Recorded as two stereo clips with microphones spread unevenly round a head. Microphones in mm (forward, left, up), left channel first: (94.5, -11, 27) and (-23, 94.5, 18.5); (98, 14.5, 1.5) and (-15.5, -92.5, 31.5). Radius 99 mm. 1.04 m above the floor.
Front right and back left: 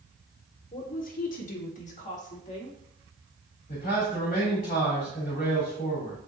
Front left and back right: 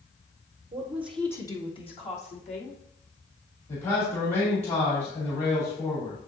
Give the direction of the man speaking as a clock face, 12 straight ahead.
12 o'clock.